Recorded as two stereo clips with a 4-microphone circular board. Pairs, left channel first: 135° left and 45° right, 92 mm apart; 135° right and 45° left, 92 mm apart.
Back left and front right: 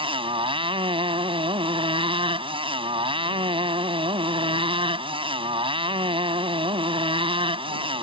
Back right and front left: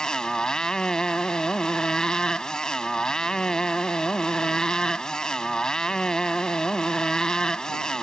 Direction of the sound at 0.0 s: 55° right.